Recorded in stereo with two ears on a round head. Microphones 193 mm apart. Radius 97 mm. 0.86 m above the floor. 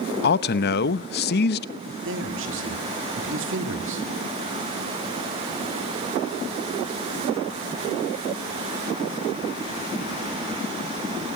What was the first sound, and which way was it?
A man speaking, 50° left (ahead or behind).